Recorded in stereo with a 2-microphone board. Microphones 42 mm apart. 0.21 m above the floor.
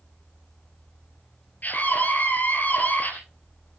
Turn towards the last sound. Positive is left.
turn(degrees=45)  # may be behind; listen again after turning